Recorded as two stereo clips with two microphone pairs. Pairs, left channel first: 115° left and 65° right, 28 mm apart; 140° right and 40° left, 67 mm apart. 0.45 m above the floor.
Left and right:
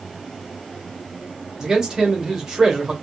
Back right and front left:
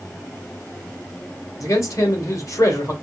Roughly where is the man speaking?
Behind right.